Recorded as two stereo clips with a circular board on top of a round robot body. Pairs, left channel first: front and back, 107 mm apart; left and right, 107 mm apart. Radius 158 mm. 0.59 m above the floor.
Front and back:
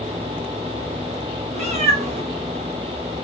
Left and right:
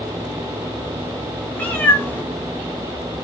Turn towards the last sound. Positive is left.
turn(degrees=165)